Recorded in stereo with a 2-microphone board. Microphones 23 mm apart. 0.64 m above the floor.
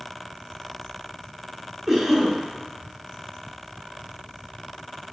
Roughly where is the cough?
Centre.